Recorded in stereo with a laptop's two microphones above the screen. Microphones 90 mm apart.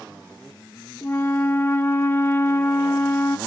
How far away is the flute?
About 1.2 m.